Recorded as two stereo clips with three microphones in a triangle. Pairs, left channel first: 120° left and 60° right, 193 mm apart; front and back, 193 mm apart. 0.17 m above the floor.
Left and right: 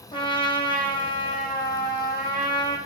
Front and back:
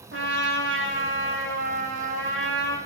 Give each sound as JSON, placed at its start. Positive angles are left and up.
{"t": 0.1, "sound": "a trumpet", "azimuth_deg": -175, "distance_m": 1.2}